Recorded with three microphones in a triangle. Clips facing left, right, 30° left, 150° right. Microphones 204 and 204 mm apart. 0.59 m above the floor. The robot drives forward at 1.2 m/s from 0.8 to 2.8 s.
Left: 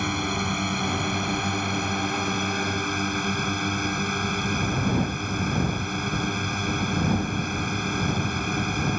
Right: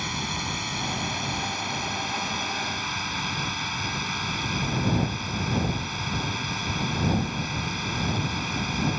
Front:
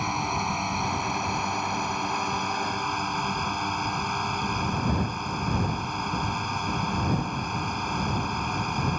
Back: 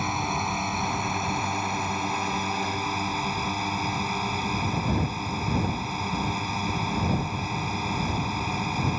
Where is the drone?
120° left; by 9.0 s 125° left.